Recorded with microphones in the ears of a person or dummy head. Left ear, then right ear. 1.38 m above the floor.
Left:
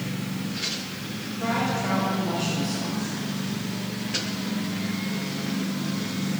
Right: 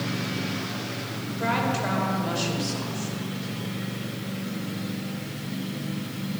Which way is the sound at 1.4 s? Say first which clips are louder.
Right 1 dB; 45° right (ahead or behind).